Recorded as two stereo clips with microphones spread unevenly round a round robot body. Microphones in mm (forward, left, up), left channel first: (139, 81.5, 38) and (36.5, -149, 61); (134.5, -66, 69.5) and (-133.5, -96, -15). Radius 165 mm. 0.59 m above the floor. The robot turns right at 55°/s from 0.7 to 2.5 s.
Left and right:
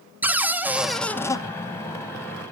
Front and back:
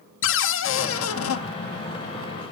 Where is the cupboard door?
25° right, 0.7 m; by 1.4 s 15° left, 0.7 m.